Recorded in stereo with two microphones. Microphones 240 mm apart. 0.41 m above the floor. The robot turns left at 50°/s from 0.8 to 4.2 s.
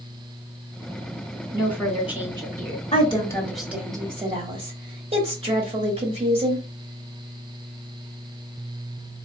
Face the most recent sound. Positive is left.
turn(degrees=-30)